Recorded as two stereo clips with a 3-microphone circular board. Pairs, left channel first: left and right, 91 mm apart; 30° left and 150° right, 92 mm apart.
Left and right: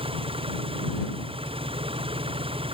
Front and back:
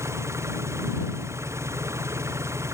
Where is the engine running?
90° right.